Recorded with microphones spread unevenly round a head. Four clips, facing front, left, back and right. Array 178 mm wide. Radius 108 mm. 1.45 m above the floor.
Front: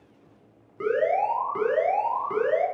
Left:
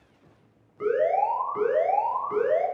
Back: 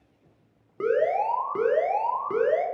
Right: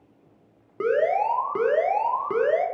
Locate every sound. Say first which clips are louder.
0.8 s an alarm: right 1 dB, even; 120° right, 0.8 m